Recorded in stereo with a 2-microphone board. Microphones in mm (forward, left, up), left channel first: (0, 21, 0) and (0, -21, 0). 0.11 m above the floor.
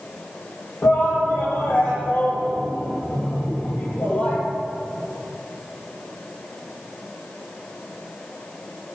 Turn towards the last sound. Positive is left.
turn(degrees=45)  # may be behind; listen again after turning